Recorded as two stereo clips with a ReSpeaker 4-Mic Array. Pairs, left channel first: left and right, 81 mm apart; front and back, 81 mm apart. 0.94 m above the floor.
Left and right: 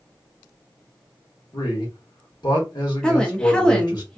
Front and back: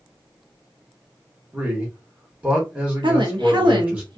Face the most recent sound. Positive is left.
turn(degrees=170)